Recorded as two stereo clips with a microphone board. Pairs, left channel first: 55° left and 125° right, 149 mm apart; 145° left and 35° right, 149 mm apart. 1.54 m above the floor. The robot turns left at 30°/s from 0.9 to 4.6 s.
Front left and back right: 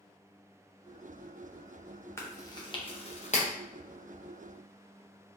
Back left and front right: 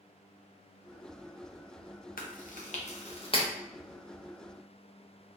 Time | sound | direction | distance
2.2 | chewing | 130° left | 0.6 m